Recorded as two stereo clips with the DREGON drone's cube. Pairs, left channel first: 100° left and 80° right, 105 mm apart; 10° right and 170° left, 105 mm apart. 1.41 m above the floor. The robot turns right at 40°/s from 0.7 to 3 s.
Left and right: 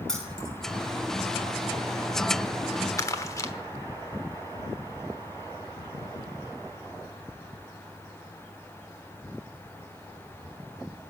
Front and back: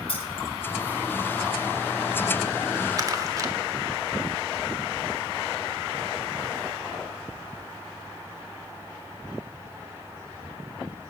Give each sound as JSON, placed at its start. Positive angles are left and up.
{"t": 0.1, "sound": "keys jangling", "azimuth_deg": 15, "distance_m": 6.0}
{"t": 3.0, "sound": "crumpling", "azimuth_deg": 140, "distance_m": 1.3}